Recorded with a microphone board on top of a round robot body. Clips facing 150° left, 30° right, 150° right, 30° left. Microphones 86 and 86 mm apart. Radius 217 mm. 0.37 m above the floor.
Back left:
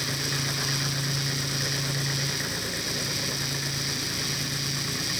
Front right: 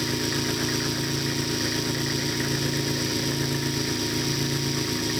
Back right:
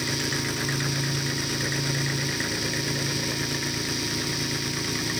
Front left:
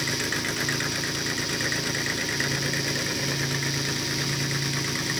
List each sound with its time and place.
0.0 s an engine running: 65° right